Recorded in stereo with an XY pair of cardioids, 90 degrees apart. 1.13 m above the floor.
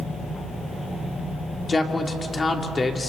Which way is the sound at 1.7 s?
30° left.